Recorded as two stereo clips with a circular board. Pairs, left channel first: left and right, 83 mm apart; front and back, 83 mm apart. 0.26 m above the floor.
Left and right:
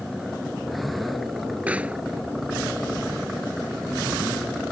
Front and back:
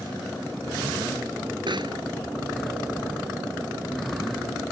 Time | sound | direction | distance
1.7 | a pop | 165° right | ?